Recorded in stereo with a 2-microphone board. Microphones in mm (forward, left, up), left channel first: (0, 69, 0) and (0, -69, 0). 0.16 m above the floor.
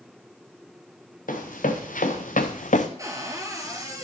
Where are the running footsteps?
80° left, 1.9 m; by 2.9 s 65° left (ahead or behind), 0.7 m.